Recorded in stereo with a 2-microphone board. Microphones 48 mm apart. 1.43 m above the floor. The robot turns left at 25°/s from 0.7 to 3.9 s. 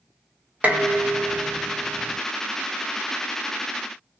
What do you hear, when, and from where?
0.6 s dishes clattering: 80° right, 0.7 m; by 2.2 s 115° right, 0.7 m